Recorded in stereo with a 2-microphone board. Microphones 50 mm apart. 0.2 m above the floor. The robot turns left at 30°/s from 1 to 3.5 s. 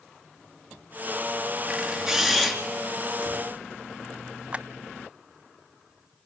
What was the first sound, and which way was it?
A camera shutter, 15° right (ahead or behind).